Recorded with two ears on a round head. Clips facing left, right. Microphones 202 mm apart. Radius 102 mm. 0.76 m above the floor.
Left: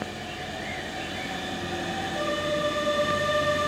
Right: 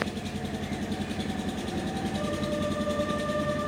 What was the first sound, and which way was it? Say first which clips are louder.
An engine running: right 3 dB; 85° right.